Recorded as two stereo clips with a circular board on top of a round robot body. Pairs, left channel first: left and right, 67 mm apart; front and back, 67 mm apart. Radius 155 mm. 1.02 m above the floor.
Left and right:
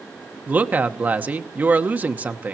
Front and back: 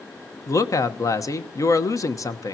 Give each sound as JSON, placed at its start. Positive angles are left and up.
{"t": 0.5, "sound": "a woman speaking", "azimuth_deg": -25, "distance_m": 1.2}